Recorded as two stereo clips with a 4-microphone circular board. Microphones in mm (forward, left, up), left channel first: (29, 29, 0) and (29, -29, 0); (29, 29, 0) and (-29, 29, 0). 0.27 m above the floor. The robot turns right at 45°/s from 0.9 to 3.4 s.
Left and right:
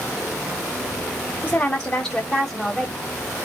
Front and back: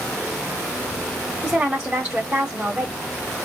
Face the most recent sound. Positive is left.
turn(degrees=-165)